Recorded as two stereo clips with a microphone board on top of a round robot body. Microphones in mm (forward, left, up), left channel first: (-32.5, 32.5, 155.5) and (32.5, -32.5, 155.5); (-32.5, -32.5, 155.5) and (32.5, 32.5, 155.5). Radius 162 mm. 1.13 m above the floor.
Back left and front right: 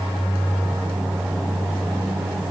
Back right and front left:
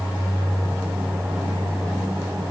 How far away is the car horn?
No car horn in this recording.